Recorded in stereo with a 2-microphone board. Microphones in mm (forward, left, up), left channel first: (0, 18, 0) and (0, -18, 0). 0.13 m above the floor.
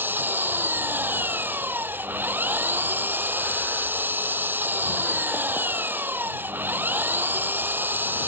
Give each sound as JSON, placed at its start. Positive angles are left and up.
{"t": 0.0, "sound": "an engine running", "side_deg": -65}